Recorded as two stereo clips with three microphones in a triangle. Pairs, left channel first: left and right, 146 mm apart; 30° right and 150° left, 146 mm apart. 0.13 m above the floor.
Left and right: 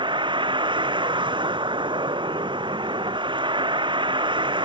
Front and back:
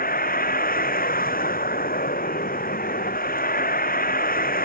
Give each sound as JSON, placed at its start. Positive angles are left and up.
{"t": 0.0, "sound": "a vehicle", "azimuth_deg": -35}